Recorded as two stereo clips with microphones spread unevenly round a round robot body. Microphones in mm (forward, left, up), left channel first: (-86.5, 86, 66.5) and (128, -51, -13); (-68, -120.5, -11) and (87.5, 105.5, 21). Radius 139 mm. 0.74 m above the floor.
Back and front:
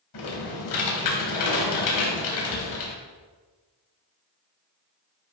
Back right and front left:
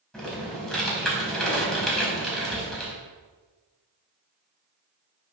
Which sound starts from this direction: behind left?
Typing on a keyboard, at 0.1 s.